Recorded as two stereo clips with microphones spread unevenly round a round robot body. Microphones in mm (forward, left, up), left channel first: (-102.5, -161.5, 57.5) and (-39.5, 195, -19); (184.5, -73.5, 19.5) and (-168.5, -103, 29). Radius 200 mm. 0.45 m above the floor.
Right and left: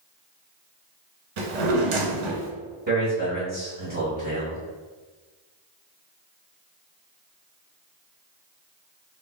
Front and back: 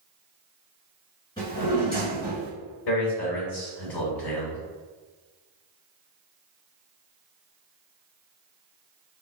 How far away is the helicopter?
I don't hear a helicopter.